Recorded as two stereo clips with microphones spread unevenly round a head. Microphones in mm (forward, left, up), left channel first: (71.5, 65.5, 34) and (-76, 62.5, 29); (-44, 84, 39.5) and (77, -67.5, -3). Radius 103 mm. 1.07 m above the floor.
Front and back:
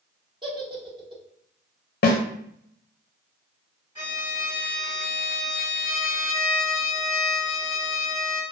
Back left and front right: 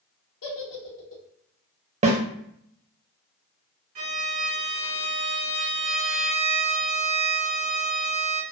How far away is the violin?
About 1.5 m.